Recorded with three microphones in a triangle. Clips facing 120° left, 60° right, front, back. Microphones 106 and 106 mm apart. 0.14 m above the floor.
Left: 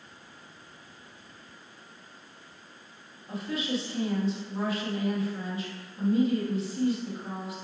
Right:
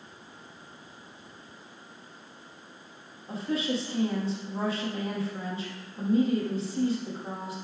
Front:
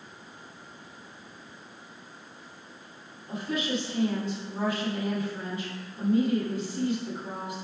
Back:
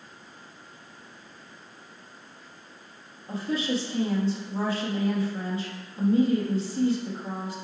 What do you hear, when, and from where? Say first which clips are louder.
3.3 s a woman speaking: right 2 dB, back 2 dB; 120° right, 3.5 m